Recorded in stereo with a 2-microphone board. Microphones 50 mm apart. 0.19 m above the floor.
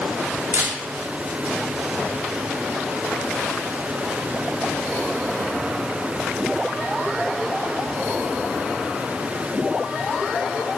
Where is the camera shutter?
65° right (ahead or behind), 3.5 m.